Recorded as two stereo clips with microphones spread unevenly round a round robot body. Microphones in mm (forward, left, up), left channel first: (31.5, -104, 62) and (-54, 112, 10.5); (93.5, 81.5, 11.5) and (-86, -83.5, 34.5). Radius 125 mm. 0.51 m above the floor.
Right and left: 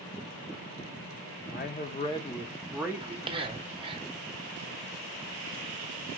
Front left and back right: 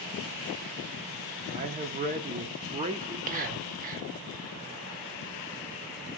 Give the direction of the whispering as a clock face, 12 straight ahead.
6 o'clock.